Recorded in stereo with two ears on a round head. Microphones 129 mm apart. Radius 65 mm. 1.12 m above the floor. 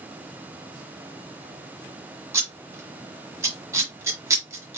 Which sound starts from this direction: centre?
Scissors, at 2.3 s.